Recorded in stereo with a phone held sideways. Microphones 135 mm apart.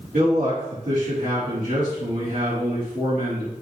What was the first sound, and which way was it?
A man speaking, 75° right (ahead or behind).